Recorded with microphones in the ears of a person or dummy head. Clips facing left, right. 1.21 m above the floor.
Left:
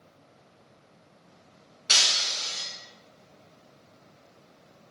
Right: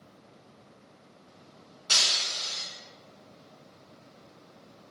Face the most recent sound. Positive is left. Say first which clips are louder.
# left 2 dB
turn(degrees=30)  # may be behind; listen again after turning